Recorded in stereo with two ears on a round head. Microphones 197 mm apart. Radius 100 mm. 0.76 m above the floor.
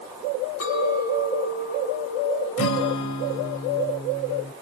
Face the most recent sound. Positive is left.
turn(degrees=65)  # may be behind; listen again after turning